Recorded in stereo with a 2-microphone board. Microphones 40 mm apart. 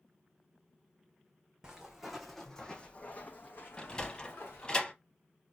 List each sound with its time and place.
1.6 s footsteps: 15° right (ahead or behind), 0.8 m; by 4.8 s 80° left, 1.2 m
3.8 s a sliding door: 25° left (ahead or behind), 0.6 m